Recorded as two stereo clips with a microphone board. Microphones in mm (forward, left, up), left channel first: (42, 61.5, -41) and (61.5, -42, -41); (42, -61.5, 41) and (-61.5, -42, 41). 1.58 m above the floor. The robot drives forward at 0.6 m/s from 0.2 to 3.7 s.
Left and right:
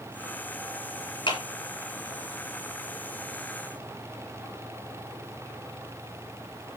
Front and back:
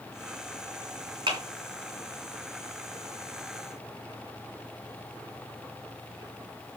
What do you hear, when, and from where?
1.3 s a clap: 140° left, 3.5 m